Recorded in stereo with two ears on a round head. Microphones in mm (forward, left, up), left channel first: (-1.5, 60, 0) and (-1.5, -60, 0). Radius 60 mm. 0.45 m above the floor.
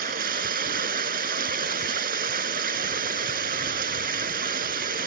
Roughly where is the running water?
Right.